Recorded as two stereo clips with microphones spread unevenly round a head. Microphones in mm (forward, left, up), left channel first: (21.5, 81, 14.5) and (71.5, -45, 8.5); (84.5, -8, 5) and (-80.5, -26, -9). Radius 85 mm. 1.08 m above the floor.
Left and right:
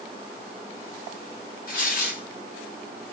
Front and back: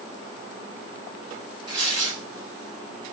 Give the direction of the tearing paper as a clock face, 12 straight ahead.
8 o'clock.